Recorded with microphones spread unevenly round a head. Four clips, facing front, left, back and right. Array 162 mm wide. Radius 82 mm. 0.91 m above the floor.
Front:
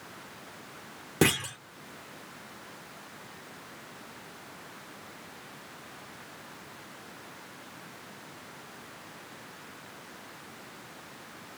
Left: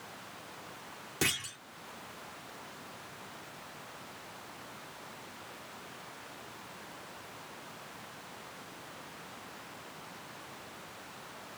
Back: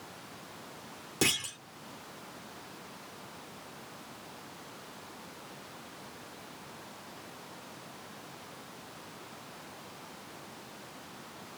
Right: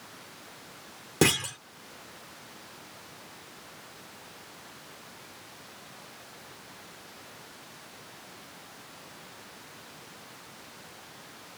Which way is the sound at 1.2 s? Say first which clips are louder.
Right 11 dB, front 7 dB; 55° right.